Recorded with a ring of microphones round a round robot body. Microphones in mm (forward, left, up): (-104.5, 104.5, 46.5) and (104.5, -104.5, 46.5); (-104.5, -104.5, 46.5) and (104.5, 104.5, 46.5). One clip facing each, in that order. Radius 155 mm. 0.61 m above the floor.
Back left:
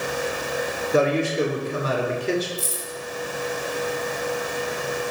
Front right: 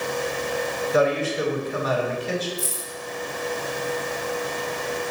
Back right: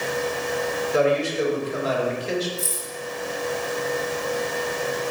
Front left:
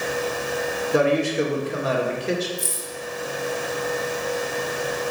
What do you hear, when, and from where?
0.9 s a man speaking: 75° left, 2 m
2.6 s keys jangling: 140° left, 3 m